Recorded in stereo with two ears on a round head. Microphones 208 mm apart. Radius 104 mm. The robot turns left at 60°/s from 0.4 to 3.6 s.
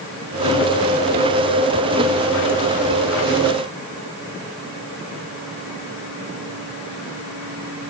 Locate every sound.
Only background noise.